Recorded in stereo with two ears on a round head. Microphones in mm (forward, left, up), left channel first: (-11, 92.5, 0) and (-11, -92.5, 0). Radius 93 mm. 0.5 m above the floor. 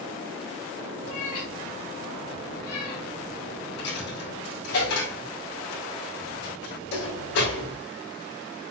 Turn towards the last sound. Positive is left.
turn(degrees=85)